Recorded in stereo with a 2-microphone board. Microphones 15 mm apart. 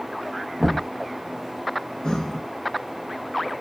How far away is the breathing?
About 0.5 m.